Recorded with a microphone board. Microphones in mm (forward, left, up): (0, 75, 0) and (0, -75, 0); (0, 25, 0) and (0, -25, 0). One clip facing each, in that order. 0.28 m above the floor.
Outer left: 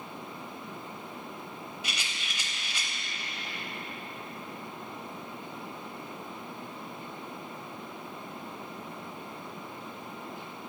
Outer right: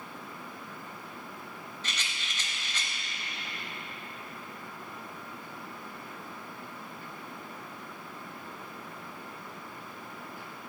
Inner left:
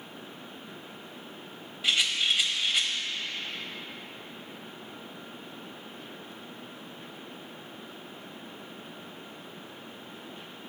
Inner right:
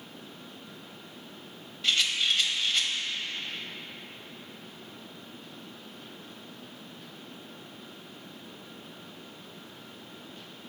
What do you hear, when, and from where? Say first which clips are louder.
1.8 s a rattle: outer left 1 dB, even; 10° left (ahead or behind), 0.8 m